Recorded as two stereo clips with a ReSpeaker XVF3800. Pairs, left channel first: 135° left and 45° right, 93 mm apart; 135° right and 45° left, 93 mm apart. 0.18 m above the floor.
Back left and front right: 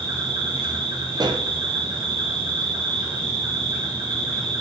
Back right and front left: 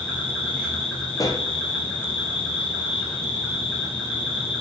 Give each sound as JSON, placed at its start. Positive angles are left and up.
{"t": 0.0, "sound": "an insect", "azimuth_deg": -55, "distance_m": 3.5}
{"t": 1.1, "sound": "a pop", "azimuth_deg": -85, "distance_m": 0.8}